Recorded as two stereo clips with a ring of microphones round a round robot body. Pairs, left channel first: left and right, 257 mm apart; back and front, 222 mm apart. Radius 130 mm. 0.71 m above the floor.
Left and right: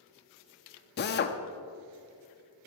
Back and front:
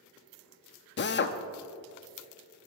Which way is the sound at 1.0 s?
140° left.